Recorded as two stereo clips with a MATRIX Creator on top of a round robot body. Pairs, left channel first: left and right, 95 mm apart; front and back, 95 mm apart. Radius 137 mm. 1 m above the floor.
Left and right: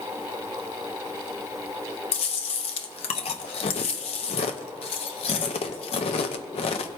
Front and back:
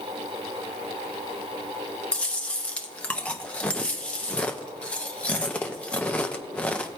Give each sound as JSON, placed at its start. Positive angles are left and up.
{"t": 2.1, "sound": "chewing", "azimuth_deg": 75, "distance_m": 0.6}